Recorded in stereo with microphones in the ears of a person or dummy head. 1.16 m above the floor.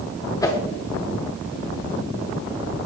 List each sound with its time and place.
0.4 s a whoosh: 20° left (ahead or behind), 1.0 m